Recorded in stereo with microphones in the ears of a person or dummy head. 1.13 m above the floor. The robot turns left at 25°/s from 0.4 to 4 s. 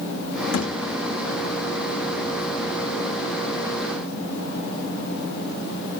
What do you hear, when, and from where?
0.5 s a thud: 70° left (ahead or behind), 7 m; by 0.8 s 75° left (ahead or behind), 7 m